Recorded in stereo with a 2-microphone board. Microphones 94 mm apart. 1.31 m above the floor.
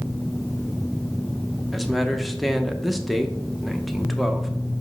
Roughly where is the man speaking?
Centre.